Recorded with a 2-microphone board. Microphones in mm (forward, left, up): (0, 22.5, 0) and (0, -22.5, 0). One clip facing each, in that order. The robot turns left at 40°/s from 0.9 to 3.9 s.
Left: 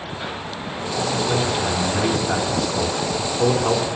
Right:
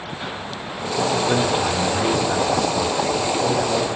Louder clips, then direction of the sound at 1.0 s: Right 3 dB; 45° right (ahead or behind).